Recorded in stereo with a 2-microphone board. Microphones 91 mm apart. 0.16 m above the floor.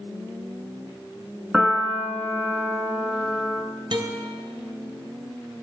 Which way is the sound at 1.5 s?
5° right (ahead or behind).